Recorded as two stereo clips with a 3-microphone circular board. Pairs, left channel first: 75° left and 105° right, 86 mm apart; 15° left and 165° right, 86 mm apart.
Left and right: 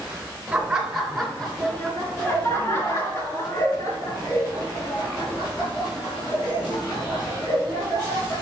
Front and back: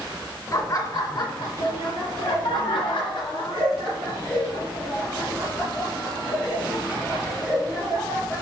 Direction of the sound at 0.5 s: 30° right.